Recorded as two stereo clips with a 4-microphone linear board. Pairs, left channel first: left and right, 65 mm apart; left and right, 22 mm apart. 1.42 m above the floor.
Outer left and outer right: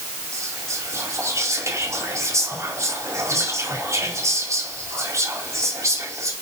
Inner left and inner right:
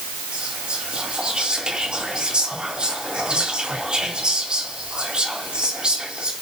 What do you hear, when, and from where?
0.3 s whispering: 50° right (ahead or behind), 5 m